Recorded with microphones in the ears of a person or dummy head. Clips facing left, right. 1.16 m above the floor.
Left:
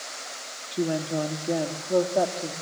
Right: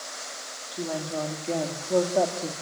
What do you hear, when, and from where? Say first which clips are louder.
0.7 s a woman speaking: left 5 dB; 30° left (ahead or behind), 2 m; by 2.5 s 10° right (ahead or behind), 2.5 m